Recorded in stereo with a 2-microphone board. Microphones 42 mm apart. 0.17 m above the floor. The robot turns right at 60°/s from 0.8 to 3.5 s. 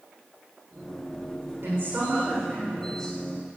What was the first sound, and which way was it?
A woman speaking, 80° right.